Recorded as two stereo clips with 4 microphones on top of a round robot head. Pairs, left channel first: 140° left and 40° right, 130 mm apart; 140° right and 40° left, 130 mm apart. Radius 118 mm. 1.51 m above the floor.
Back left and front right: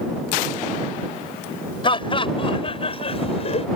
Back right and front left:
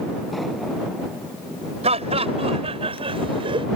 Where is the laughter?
85° left; by 3.7 s 95° left.